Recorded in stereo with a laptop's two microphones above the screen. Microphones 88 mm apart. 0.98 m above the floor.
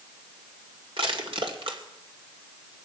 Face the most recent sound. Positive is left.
turn(degrees=-80)